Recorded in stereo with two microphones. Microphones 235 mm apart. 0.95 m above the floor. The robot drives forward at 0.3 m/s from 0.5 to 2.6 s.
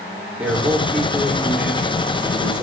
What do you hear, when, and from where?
0.4 s a man speaking: 5° right (ahead or behind), 3.5 m